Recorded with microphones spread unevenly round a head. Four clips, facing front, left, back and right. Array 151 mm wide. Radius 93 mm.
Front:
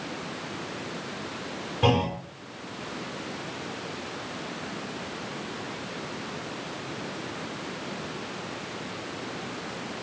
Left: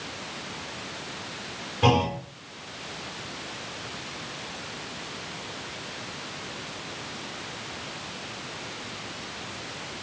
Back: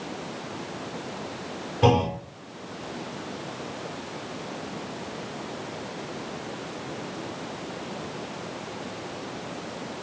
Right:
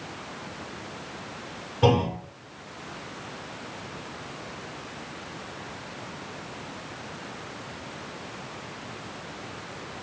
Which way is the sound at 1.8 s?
160° right.